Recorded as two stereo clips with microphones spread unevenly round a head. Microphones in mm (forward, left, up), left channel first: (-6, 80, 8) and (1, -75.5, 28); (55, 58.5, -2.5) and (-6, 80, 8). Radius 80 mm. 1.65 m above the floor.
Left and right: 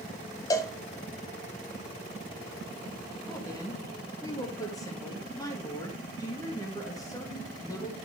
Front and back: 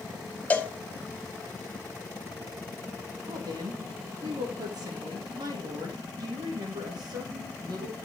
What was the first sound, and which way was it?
A cowbell, 40° left.